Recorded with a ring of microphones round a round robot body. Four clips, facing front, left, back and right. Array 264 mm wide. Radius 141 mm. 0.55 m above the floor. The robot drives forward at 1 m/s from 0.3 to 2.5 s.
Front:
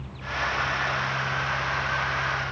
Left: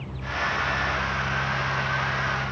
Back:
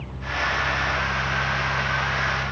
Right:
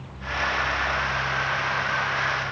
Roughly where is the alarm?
No alarm in this recording.